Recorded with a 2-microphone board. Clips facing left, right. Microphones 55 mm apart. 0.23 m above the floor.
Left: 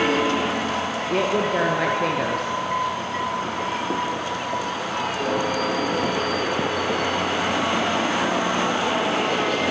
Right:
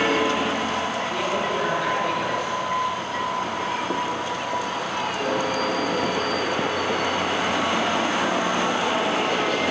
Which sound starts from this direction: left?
A woman speaking, at 1.1 s.